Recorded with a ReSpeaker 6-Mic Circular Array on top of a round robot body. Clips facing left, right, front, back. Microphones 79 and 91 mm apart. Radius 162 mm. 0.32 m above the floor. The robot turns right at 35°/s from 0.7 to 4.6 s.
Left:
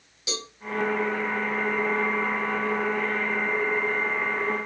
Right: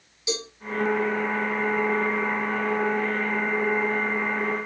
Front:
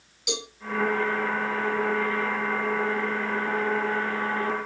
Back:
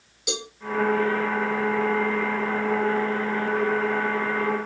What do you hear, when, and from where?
0.3 s a cowbell: 140° left, 3 m